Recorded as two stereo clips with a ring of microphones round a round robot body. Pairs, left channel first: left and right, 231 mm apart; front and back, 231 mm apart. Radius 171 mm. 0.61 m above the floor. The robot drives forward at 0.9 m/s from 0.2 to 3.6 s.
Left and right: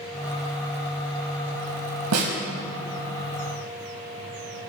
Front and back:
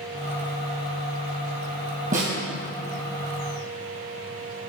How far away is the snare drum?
About 2.5 m.